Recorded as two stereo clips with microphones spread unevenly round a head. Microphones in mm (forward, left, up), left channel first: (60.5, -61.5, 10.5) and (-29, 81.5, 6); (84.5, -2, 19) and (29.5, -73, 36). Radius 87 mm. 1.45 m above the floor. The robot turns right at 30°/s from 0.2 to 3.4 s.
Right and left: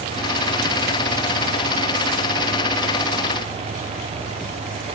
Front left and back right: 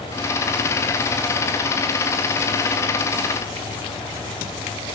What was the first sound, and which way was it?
Only background noise.